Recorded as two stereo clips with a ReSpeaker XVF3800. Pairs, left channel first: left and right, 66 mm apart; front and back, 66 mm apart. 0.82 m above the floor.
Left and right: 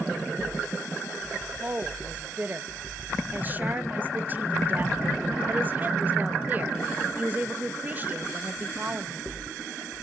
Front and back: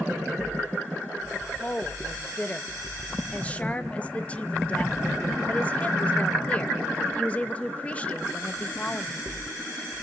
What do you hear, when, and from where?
1.3 s a woman speaking: 55° right, 1.0 m